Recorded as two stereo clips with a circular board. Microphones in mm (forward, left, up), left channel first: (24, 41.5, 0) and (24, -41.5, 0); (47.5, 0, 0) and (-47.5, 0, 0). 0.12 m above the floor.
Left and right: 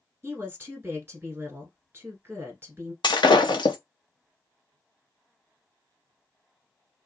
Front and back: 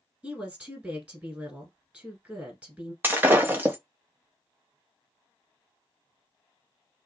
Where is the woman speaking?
120° right, 1.3 m.